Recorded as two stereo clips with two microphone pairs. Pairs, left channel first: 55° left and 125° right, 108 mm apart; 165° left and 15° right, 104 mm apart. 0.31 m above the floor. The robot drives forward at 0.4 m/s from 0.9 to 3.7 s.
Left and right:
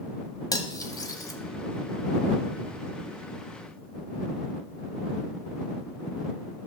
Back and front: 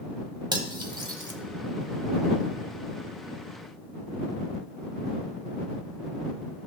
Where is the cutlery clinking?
15° left, 1.1 m.